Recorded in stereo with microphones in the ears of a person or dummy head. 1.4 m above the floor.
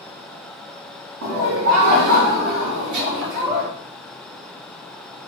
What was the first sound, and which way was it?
Laughter, 90° right.